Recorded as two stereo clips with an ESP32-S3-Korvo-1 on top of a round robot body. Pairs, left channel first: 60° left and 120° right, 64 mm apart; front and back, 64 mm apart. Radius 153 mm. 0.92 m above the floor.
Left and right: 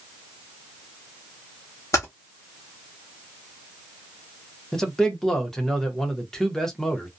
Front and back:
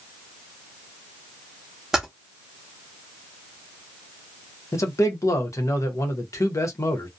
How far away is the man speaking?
About 0.9 m.